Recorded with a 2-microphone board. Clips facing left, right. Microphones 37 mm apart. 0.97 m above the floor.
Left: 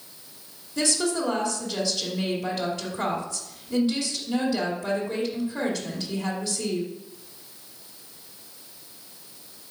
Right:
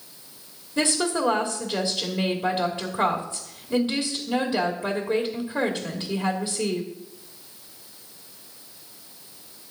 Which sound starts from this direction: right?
A woman speaking, at 0.8 s.